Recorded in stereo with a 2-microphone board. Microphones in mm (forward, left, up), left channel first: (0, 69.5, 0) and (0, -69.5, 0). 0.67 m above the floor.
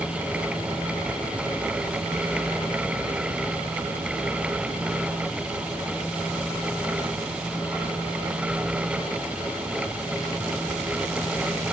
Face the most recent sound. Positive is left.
No sound to turn to.